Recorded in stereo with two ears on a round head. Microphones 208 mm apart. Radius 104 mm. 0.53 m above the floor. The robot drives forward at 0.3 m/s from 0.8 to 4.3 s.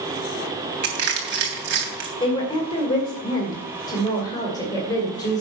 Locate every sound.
0.8 s crushing: 45° right (ahead or behind), 3.5 m; by 2.1 s 50° right (ahead or behind), 3 m
2.2 s a woman speaking: 20° left (ahead or behind), 2 m